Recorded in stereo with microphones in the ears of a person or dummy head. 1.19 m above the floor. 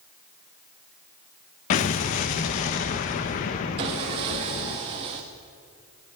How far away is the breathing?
No breathing in this recording.